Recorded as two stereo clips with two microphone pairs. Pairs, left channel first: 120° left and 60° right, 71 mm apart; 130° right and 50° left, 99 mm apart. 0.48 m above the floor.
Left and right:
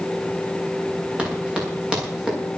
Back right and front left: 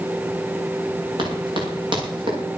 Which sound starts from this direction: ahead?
Running footsteps, at 1.2 s.